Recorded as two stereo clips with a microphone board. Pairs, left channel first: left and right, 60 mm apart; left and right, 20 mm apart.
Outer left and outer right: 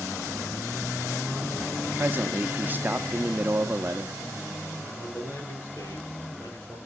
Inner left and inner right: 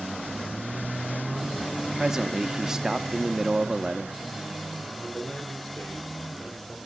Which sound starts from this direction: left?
A man speaking, at 5.0 s.